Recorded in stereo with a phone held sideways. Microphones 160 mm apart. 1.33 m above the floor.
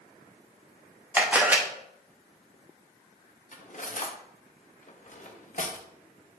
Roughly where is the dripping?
No dripping in this recording.